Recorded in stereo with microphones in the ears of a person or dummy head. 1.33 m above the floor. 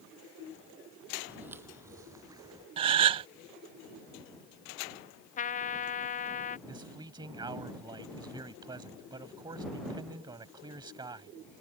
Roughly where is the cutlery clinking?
No cutlery clinking in this recording.